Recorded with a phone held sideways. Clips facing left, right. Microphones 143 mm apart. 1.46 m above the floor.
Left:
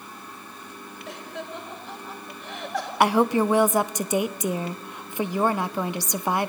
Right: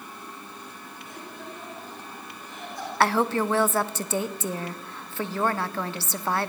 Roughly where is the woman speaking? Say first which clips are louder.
Left 3 dB; centre.